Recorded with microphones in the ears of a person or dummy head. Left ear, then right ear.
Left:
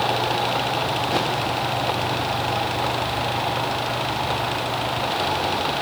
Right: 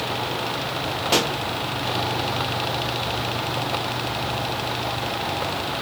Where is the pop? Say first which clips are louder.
Right 5 dB; 65° right (ahead or behind), 1.4 m.